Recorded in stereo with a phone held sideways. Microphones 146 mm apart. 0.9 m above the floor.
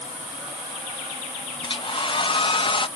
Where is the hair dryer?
35° left (ahead or behind).